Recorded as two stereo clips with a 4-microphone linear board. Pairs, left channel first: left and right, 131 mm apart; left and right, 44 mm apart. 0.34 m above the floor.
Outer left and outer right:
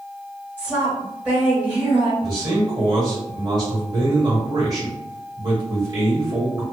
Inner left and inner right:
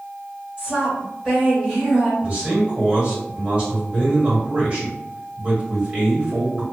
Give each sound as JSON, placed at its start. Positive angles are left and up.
{"t": 0.6, "sound": "a woman speaking", "side_deg": -15, "distance_m": 1.7}
{"t": 2.2, "sound": "a man speaking", "side_deg": -30, "distance_m": 1.3}